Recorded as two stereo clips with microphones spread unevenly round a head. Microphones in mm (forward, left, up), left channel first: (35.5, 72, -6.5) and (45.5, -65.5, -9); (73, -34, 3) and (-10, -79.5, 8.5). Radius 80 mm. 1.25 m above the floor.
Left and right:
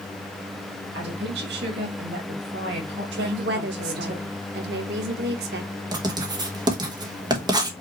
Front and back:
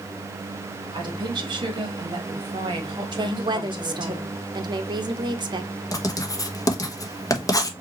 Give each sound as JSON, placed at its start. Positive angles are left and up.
{"t": 0.9, "sound": "a woman speaking", "azimuth_deg": -115, "distance_m": 1.6}
{"t": 3.1, "sound": "a woman speaking", "azimuth_deg": -110, "distance_m": 0.9}
{"t": 5.9, "sound": "writing", "azimuth_deg": -25, "distance_m": 1.1}